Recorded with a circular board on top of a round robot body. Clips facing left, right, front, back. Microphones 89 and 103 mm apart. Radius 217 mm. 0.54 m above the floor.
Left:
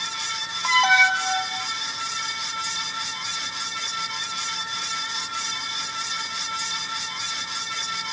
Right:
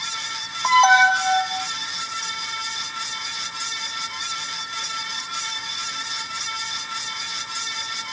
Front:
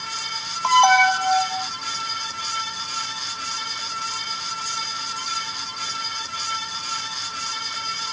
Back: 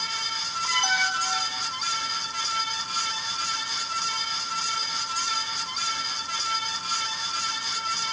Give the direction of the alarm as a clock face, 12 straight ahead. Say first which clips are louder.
Right 5 dB, front 14 dB; 1 o'clock.